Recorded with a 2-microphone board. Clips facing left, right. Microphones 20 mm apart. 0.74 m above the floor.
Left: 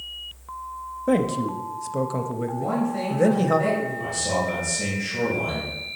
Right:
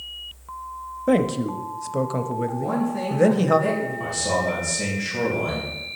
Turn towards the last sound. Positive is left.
turn(degrees=-15)  # may be behind; listen again after turning